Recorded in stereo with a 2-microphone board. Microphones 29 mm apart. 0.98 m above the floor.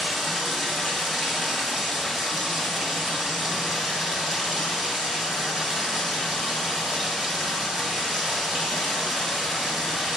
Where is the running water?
20° right (ahead or behind), 1.5 m.